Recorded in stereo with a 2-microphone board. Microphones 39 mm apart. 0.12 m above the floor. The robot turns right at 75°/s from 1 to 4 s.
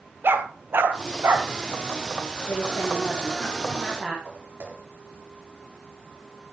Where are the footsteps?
45° right (ahead or behind), 7 m.